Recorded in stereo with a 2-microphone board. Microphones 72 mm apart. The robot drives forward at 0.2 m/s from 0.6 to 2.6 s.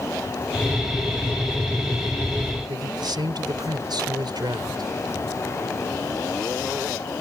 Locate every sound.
2.7 s a man speaking: 70° right (ahead or behind)